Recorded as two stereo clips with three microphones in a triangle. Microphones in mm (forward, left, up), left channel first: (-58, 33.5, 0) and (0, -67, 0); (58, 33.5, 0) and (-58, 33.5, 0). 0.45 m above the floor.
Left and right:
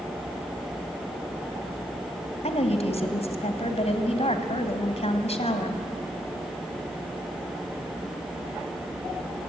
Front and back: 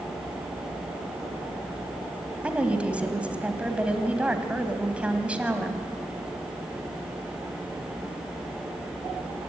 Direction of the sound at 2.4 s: 100° left.